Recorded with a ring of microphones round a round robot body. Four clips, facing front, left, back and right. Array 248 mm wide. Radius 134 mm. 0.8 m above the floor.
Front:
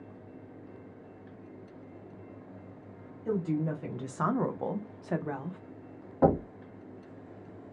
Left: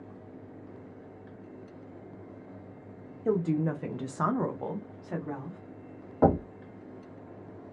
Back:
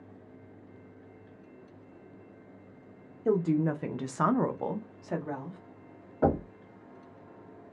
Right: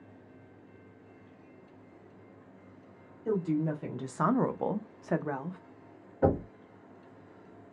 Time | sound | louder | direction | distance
3.2 | a woman speaking | left 2 dB, back 4 dB | 140° left | 0.8 m
6.2 | knocking | left 4 dB, front 2 dB | 60° left | 1.3 m